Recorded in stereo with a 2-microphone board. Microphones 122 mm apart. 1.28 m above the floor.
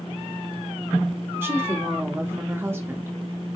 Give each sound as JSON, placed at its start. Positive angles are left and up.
{"t": 1.4, "sound": "a woman speaking", "side_deg": -20, "distance_m": 0.9}